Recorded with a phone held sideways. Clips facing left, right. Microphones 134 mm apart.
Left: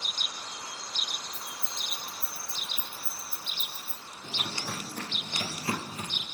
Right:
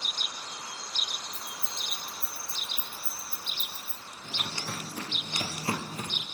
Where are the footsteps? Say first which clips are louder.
Left 1 dB; 20° left (ahead or behind), 0.9 m; by 6.2 s 40° right (ahead or behind), 1.2 m.